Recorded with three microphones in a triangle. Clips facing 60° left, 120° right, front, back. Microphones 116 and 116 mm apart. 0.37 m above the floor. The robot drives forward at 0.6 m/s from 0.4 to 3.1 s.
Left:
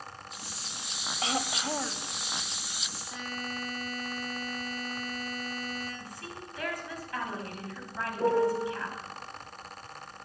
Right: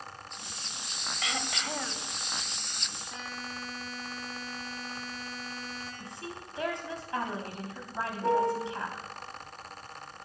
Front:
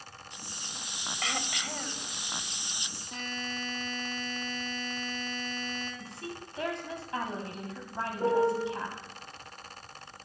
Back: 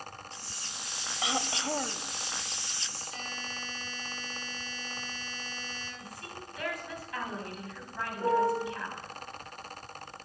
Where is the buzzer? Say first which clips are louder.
Left 4 dB, front 5 dB; 30° right, 6.5 m.